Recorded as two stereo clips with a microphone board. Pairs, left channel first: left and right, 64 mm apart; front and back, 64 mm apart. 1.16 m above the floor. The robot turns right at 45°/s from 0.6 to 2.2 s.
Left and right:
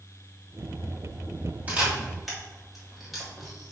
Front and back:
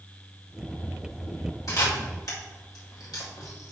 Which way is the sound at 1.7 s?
25° right.